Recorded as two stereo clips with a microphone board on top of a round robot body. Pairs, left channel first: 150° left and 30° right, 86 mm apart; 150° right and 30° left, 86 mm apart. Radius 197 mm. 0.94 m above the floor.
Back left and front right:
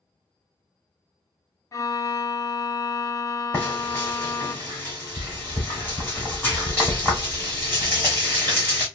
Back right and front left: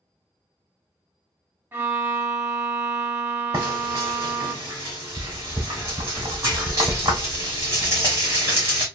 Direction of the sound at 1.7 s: 95° left.